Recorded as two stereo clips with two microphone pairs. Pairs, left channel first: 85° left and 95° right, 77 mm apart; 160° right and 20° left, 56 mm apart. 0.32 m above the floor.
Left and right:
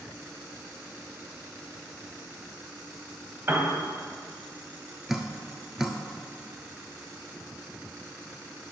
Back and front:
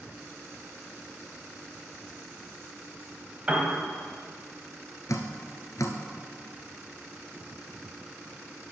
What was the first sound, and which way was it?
A piano, 45° right.